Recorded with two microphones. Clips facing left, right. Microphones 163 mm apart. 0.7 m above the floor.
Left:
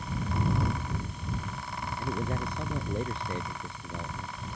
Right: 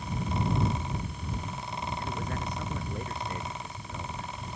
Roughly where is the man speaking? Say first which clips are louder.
Left 2 dB; left.